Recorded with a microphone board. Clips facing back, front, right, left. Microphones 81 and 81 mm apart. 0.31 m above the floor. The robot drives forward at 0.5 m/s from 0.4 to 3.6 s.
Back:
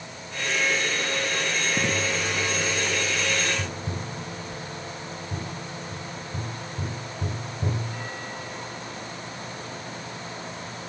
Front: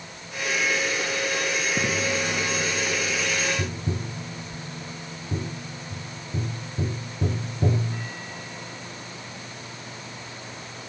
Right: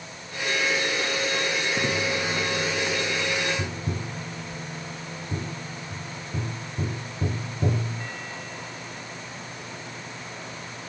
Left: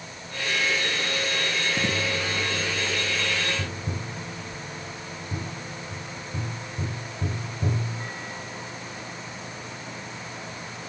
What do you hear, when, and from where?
3.6 s tapping: 30° right, 0.9 m